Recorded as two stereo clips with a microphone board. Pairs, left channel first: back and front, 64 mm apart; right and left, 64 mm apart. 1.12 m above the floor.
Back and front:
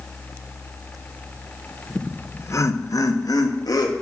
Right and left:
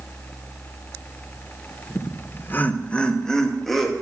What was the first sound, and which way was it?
Laughter, 105° right.